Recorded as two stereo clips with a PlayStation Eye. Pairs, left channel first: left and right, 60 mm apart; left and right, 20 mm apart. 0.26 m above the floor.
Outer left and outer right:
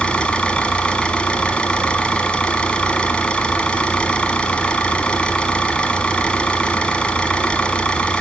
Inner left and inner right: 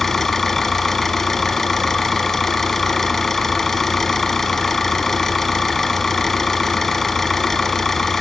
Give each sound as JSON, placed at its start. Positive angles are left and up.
{"t": 0.0, "sound": "an engine running", "side_deg": 20, "distance_m": 1.0}